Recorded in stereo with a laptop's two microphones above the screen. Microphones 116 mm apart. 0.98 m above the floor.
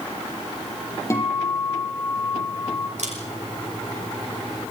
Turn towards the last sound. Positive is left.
turn(degrees=-70)  # may be behind; listen again after turning